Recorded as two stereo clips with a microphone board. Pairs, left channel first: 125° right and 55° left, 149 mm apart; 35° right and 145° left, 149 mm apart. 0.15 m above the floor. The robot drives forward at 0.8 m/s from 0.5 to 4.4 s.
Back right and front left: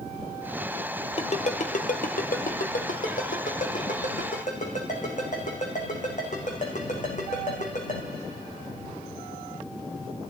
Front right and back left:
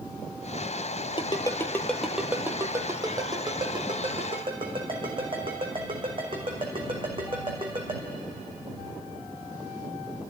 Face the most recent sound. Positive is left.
turn(degrees=-160)